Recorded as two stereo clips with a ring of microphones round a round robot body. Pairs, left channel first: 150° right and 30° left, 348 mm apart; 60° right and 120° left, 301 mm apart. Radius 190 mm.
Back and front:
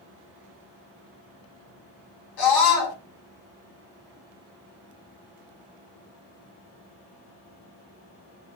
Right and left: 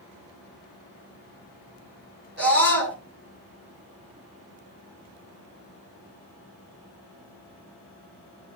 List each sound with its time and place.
2.4 s a scream: 175° right, 6.5 m